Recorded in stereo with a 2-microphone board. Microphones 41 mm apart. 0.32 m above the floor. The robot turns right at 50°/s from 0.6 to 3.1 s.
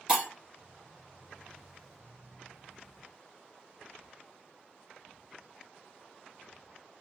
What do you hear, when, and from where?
0.1 s breaking glass: 15° right (ahead or behind), 2.5 m